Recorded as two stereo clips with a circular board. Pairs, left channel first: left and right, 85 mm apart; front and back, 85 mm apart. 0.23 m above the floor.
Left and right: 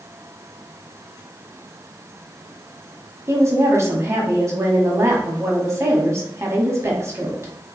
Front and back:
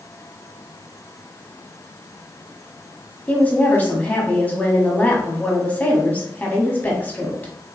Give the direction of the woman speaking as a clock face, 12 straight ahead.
2 o'clock.